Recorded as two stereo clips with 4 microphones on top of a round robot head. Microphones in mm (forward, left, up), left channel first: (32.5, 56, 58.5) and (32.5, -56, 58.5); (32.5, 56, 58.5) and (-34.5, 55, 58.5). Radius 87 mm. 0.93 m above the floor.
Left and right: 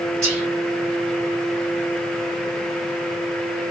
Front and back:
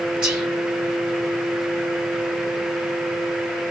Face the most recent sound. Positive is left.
turn(degrees=-120)